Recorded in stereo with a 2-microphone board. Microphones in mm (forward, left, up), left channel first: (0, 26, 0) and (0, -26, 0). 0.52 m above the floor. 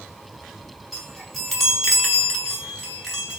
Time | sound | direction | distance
0.9 | a chime | centre (ahead or behind) | 5 m